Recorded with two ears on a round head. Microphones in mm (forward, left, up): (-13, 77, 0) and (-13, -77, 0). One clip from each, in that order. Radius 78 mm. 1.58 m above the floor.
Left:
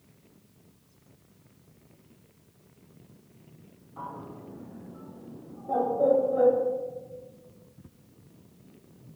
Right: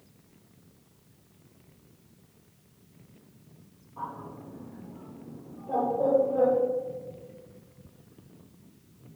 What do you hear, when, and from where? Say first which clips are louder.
4.0 s a bird: right 2 dB; 35° left (ahead or behind), 1.4 m